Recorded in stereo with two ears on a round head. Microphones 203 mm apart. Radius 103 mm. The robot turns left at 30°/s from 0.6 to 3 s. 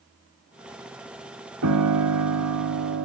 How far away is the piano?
About 1.8 m.